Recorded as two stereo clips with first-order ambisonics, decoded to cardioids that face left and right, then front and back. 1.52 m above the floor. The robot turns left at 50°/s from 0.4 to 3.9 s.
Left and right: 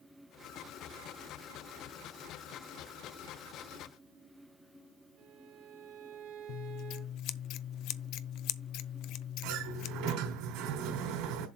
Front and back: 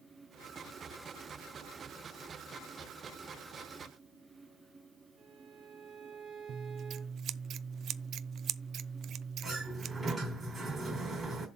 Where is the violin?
110° right, 2.5 m.